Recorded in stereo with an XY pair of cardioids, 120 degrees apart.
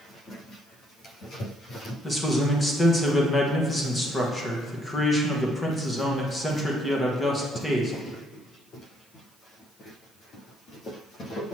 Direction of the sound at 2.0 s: 15° left.